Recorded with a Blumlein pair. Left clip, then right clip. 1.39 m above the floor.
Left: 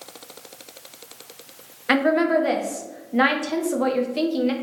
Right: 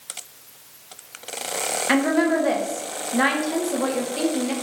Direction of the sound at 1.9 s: 5° left.